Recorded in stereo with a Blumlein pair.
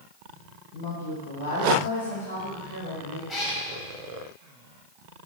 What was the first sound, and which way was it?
A woman speaking, 50° left.